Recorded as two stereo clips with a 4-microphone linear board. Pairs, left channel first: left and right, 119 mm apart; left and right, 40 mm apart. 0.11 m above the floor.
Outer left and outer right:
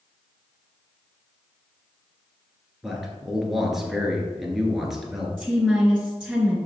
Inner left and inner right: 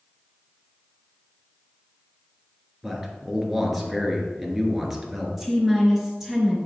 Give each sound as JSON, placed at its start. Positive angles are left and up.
{"t": 2.8, "sound": "a man speaking", "side_deg": -5, "distance_m": 1.4}
{"t": 5.4, "sound": "a woman speaking", "side_deg": 5, "distance_m": 1.8}